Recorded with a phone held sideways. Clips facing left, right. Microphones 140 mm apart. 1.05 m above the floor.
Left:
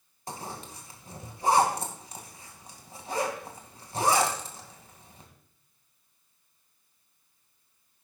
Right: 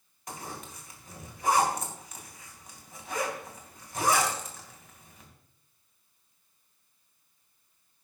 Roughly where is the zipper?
Left.